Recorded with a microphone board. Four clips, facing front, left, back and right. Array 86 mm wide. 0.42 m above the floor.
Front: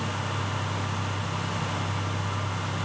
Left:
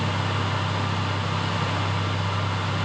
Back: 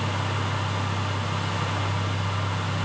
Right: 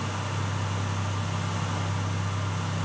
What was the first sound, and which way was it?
Only background noise.